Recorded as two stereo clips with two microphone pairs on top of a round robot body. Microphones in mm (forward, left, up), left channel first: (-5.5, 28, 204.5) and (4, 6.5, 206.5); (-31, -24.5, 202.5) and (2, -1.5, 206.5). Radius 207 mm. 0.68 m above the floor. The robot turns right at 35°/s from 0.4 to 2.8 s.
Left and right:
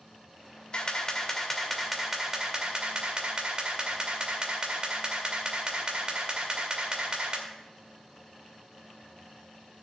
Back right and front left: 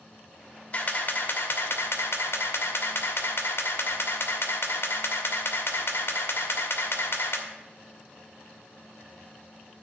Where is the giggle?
I don't hear a giggle.